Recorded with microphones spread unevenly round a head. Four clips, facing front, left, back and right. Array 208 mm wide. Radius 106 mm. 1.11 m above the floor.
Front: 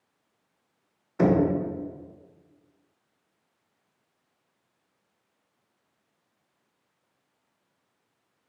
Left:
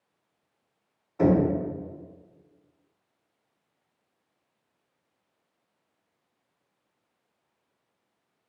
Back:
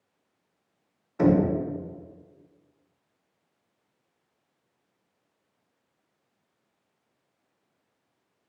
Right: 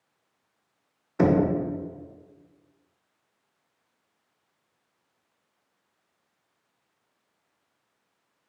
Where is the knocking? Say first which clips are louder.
Even, back 1 dB; 75° right, 0.8 m.